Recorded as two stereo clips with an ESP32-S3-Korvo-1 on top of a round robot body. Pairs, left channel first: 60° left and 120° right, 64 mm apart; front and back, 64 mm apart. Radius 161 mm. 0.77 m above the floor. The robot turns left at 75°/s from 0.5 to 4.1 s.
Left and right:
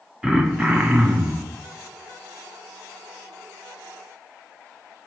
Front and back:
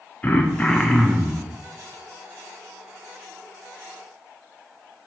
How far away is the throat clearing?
About 1.2 m.